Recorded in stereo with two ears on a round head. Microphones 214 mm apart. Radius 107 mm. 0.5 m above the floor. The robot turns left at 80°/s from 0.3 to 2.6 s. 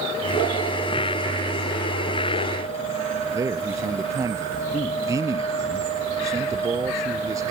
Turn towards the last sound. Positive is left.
turn(degrees=-15)  # may be behind; listen again after turning